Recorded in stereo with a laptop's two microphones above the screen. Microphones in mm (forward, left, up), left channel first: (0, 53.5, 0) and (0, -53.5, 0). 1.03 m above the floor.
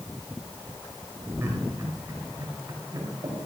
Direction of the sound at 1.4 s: 20° right (ahead or behind).